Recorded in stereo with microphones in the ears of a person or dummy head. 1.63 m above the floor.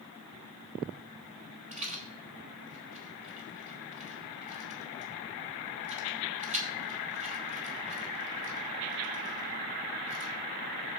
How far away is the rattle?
About 1.5 m.